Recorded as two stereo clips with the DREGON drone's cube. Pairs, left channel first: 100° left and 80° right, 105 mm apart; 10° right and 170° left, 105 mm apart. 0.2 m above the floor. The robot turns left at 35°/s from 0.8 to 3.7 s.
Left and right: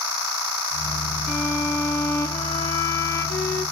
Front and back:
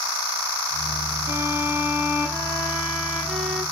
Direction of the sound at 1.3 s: 155° left.